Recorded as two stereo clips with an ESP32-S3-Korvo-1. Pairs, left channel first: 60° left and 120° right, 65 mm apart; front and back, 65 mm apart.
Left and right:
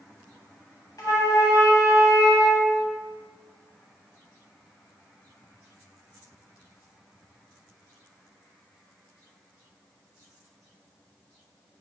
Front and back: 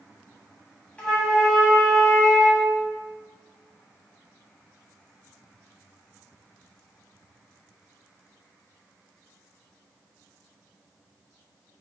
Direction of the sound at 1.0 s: 70° left.